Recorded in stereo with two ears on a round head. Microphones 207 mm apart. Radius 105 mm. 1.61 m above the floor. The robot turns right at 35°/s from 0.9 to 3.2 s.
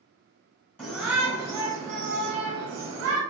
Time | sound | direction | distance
0.8 | a shout | 170° left | 1.1 m